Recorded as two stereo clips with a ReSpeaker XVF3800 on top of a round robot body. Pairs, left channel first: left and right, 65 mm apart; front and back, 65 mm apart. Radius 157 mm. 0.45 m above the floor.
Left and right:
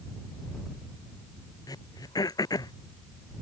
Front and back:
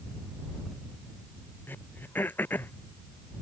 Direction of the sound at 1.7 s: 65° left.